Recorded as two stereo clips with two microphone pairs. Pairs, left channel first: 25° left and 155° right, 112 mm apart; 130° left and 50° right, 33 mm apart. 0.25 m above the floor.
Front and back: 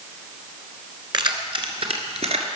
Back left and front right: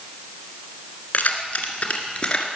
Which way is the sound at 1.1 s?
165° left.